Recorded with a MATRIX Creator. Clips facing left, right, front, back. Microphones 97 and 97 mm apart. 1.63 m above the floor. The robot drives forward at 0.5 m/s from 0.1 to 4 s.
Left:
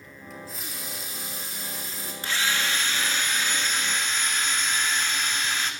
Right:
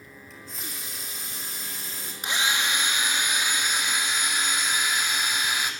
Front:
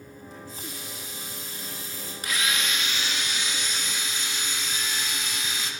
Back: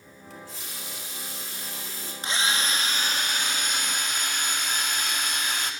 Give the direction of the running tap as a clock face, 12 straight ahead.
6 o'clock.